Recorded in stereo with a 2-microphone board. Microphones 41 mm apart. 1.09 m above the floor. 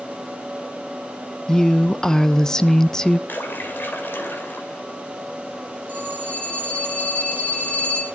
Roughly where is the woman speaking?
Centre.